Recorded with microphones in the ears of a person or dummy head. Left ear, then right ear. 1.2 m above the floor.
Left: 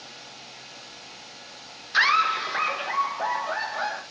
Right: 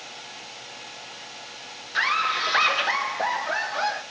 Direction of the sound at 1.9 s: 20° left (ahead or behind).